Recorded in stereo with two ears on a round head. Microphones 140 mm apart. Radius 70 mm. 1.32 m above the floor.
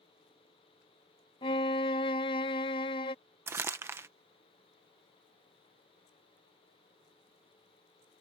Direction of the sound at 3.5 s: 15° right (ahead or behind).